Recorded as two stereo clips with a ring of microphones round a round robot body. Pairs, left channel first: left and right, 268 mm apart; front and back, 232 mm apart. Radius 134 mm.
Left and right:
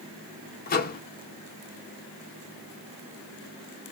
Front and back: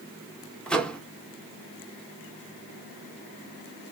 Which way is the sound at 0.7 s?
80° left.